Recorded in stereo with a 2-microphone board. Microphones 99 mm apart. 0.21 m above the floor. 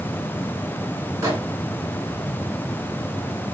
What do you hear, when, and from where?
1.2 s a microwave: 35° right (ahead or behind), 1.6 m